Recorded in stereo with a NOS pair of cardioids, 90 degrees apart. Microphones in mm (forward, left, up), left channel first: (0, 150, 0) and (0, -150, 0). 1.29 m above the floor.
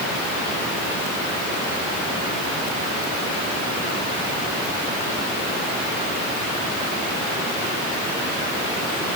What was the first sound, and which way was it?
Only background noise.